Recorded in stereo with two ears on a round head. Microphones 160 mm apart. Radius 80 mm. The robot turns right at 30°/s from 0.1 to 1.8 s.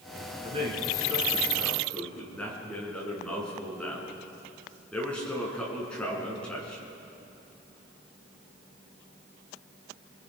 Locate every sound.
0.4 s a man speaking: 35° right, 5.5 m; by 6.8 s 5° left, 5.5 m